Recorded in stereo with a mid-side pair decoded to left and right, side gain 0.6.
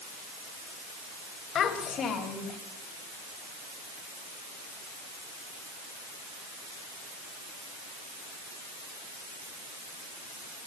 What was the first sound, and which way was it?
A child speaking, 50° left.